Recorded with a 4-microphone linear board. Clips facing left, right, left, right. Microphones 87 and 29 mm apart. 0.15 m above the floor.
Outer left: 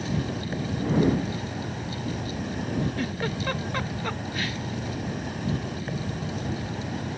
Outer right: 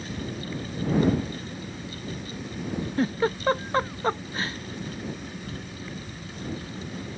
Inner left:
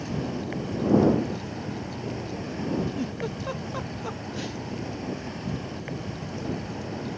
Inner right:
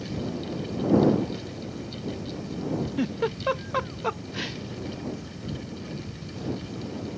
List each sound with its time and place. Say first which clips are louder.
0.0 s an insect: outer left 4 dB, inner left 1 dB; 65° left (ahead or behind)
3.0 s a giggle: outer right 4 dB, inner right 4 dB; 35° right (ahead or behind)